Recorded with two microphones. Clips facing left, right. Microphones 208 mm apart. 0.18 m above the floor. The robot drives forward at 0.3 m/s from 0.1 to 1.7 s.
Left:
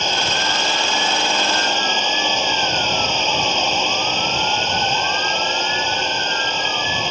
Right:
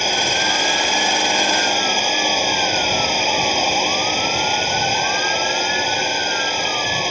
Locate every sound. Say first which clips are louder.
0.0 s a drone: right 1 dB; 10° right (ahead or behind)